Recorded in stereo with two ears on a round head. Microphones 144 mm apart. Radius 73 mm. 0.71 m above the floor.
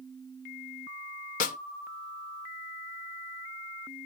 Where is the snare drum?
50° left (ahead or behind), 0.5 m.